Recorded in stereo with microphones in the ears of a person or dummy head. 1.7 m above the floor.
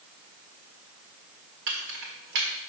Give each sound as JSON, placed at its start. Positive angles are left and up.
{"t": 1.7, "sound": "keys jangling", "side_deg": -60, "distance_m": 1.5}